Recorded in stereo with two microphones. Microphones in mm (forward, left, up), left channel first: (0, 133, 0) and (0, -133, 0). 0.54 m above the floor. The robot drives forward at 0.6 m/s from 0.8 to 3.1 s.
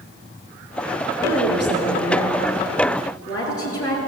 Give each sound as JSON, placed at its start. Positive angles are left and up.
{"t": 1.2, "sound": "a woman speaking", "side_deg": 70, "distance_m": 7.0}